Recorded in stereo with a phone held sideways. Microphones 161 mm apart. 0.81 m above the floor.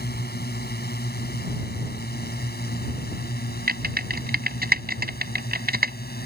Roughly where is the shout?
I don't hear a shout.